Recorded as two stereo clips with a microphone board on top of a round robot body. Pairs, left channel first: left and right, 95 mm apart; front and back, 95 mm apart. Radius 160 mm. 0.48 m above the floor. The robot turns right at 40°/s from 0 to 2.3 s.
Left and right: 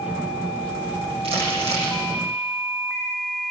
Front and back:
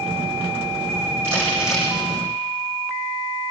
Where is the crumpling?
115° right, 9.5 m; by 1.9 s 85° right, 9.5 m.